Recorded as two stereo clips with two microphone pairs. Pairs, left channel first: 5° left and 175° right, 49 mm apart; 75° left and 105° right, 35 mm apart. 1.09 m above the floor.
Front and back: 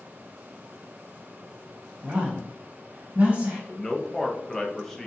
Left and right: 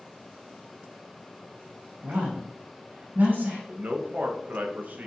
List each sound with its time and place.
2.0 s a woman speaking: 110° right, 1.3 m
3.7 s a man speaking: 75° right, 0.7 m